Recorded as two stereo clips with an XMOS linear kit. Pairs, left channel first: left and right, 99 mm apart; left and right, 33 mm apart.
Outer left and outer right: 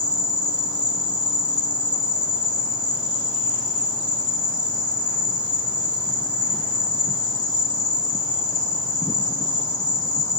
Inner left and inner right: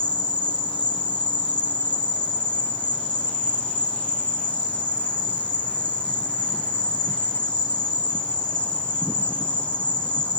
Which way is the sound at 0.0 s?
40° left (ahead or behind).